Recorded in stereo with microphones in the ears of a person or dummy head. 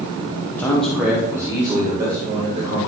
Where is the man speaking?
10° left (ahead or behind), 0.9 m; by 2.8 s 20° right (ahead or behind), 2.5 m.